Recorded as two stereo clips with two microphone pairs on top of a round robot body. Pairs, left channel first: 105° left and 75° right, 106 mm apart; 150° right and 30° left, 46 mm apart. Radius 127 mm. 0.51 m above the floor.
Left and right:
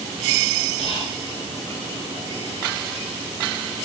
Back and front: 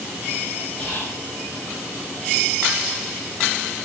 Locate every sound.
0.8 s whispering: 145° left, 2.5 m